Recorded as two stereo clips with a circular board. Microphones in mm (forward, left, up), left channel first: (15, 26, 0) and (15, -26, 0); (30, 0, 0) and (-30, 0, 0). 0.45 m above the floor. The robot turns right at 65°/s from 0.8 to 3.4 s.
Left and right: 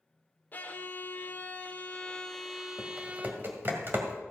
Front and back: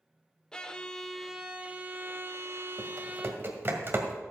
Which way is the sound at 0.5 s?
70° left.